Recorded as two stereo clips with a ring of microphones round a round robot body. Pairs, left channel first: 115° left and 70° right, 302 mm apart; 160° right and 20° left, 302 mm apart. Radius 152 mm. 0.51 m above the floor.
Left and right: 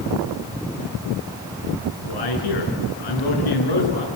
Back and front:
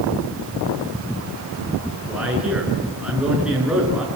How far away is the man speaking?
About 7 m.